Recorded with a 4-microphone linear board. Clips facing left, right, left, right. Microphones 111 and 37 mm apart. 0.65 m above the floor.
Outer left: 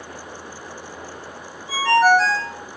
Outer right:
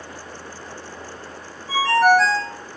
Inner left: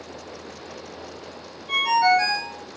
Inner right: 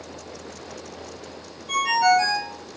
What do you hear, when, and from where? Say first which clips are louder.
1.7 s a ringtone: even, even; 15° left (ahead or behind), 1.9 m